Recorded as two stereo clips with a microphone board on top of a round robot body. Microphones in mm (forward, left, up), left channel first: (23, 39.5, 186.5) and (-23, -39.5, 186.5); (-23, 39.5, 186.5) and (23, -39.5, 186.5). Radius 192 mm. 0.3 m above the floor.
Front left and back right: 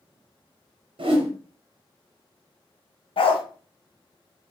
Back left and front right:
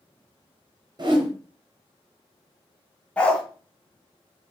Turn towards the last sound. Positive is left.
turn(degrees=45)